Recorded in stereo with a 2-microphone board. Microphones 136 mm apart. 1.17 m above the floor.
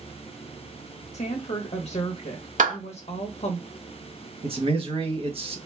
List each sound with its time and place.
1.1 s a woman speaking: 50° left (ahead or behind), 0.8 m
2.6 s a clap: 65° right (ahead or behind), 2.0 m
4.4 s a man speaking: 45° right (ahead or behind), 1.2 m